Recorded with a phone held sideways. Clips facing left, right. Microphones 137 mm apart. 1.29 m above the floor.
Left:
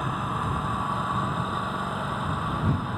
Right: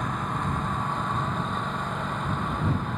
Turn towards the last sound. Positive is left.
turn(degrees=5)  # may be behind; listen again after turning